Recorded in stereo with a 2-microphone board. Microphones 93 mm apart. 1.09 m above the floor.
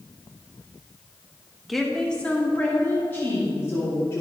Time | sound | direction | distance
1.7 | a woman speaking | centre (ahead or behind) | 1.0 m